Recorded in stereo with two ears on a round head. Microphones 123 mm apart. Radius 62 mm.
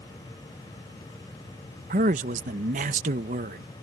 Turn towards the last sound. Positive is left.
turn(degrees=-60)  # may be behind; listen again after turning